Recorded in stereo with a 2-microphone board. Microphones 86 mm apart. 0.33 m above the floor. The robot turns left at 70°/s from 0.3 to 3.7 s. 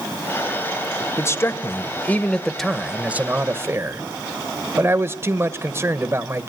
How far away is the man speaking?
About 1.1 m.